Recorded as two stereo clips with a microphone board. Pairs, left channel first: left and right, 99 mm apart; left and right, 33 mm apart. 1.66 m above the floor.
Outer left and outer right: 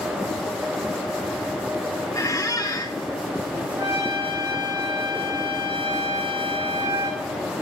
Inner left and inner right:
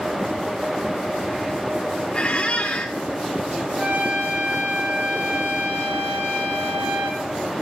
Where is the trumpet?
45° right (ahead or behind), 2.5 m.